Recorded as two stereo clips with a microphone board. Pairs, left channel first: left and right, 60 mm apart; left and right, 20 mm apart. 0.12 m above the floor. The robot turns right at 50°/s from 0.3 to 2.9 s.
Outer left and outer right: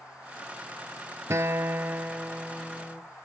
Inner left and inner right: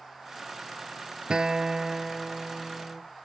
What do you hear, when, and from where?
1.3 s a guitar: 65° right, 0.7 m; by 3.0 s 15° left, 0.7 m